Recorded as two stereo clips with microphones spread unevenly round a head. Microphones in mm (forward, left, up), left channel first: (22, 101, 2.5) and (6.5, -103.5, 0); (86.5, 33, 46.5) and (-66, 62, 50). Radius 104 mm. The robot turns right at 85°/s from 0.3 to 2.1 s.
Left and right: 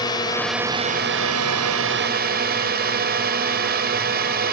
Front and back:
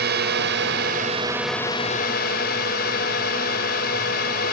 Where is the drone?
160° left; by 4.5 s 50° right.